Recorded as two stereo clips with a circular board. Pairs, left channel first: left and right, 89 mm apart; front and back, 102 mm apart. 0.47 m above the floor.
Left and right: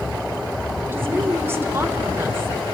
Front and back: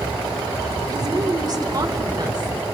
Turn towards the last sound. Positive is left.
turn(degrees=-145)